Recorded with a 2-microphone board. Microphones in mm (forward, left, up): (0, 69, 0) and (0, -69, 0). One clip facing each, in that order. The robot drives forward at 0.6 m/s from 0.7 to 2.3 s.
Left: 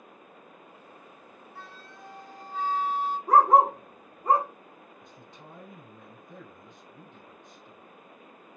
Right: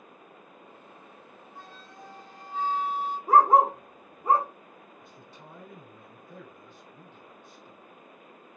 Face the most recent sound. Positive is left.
turn(degrees=20)  # may be behind; listen again after turning